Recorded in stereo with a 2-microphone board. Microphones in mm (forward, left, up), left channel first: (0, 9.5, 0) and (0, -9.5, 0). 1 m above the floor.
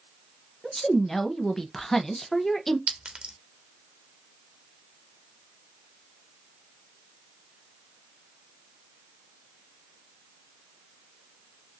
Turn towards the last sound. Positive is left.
turn(degrees=-80)